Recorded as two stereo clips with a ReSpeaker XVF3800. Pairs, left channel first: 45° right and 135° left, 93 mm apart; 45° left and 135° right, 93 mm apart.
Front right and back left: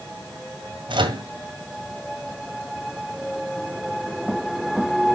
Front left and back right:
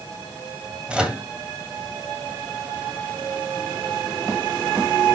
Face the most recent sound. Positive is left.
turn(degrees=145)